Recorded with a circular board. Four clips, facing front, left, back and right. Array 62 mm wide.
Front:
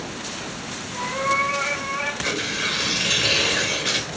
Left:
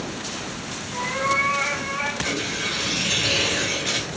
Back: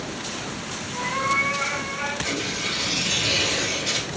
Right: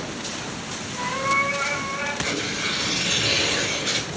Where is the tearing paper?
5° left, 1.1 m.